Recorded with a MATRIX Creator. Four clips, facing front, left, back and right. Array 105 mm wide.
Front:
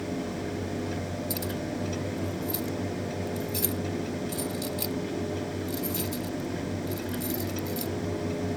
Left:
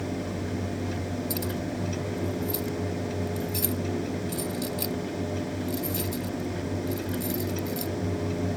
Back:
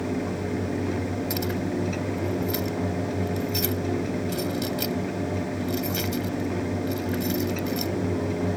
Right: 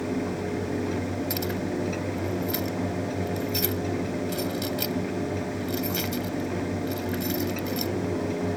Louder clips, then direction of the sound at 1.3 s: Right 2 dB, back 5 dB; 135° right.